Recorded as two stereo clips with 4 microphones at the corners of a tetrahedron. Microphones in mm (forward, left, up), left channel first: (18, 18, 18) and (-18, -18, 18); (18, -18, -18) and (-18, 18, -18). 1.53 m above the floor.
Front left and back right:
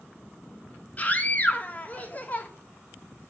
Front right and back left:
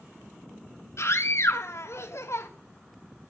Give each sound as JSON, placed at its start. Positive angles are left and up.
{"t": 1.0, "sound": "a scream", "azimuth_deg": -15, "distance_m": 3.0}